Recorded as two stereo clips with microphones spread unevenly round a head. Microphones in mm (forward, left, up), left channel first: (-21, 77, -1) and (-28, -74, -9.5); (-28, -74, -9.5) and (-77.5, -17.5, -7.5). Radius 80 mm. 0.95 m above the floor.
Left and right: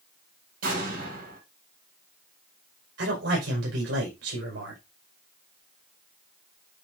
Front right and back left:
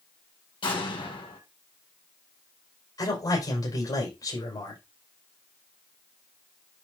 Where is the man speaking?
85° right, 5 m.